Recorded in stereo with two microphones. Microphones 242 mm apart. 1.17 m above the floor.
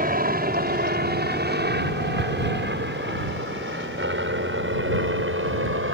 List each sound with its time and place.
0.0 s a helicopter: 35° right (ahead or behind); by 5.9 s 55° right (ahead or behind)